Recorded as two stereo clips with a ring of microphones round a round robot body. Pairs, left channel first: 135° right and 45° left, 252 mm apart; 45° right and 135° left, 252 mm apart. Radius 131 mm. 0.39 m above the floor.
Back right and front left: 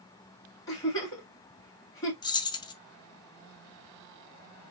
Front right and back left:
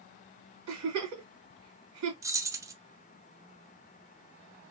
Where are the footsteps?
No footsteps in this recording.